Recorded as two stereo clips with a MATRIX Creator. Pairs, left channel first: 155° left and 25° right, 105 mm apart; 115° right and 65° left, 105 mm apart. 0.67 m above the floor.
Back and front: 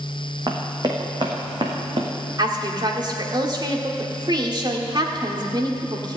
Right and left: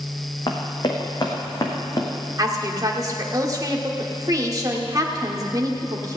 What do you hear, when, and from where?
0.5 s running footsteps: 70° right, 2.5 m; by 2.1 s 60° right, 3 m
2.4 s a woman speaking: 15° left, 1.7 m